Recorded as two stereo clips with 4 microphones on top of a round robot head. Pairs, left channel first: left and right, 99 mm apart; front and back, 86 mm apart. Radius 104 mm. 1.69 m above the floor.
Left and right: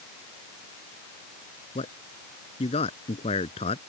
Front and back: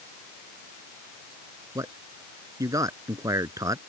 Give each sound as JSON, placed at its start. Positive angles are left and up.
{"t": 1.8, "sound": "a man speaking", "azimuth_deg": 130}